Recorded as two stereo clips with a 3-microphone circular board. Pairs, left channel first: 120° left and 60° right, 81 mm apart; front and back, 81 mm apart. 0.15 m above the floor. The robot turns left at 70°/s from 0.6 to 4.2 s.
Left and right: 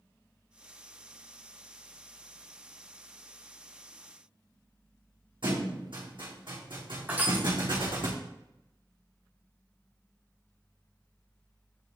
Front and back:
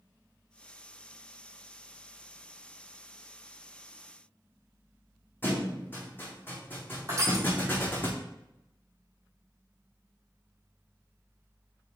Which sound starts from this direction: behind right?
Crushing, at 7.1 s.